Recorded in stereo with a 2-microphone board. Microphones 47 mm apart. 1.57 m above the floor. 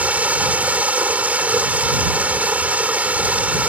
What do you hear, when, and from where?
0.0 s running water: 35° right (ahead or behind)